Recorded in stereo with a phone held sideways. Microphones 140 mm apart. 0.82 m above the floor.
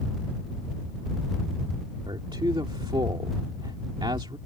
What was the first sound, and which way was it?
A man speaking, 35° right (ahead or behind).